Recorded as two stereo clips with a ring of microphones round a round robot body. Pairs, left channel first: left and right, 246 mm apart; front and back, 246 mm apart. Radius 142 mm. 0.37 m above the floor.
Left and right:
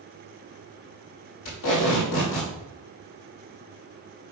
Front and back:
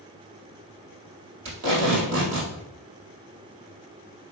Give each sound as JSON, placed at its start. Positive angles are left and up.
{"t": 1.4, "sound": "tape being pulled", "azimuth_deg": 140, "distance_m": 3.5}